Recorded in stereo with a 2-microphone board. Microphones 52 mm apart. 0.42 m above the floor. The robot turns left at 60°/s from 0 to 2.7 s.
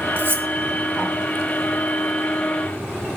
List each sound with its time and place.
0.2 s cutlery clinking: 45° right (ahead or behind), 0.8 m